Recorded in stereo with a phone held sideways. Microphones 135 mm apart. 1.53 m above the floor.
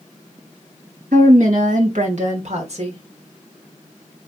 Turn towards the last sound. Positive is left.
turn(degrees=-45)  # may be behind; listen again after turning